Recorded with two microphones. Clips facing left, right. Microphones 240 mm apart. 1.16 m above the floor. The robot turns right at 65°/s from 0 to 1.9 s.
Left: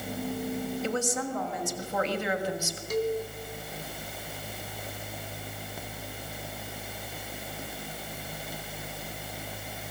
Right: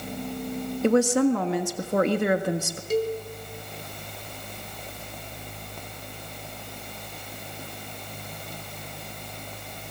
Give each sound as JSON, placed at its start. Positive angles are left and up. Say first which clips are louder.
{"t": 0.8, "sound": "a woman speaking", "louder": "right 16 dB", "azimuth_deg": -125, "distance_m": 1.5}
{"t": 2.9, "sound": "a cowbell", "louder": "right 3 dB", "side_deg": -30, "distance_m": 2.0}